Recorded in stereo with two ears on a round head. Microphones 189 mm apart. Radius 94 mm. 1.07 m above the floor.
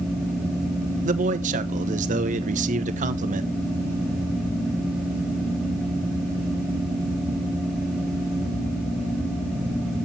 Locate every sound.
1.1 s a man speaking: 35° right (ahead or behind), 0.8 m